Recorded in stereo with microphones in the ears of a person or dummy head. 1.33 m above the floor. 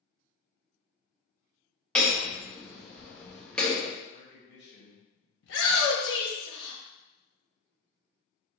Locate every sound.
1.9 s hammering: 10° left (ahead or behind), 0.9 m
4.1 s a man speaking: 65° left (ahead or behind), 1.9 m
5.4 s a shout: 65° left (ahead or behind), 1.1 m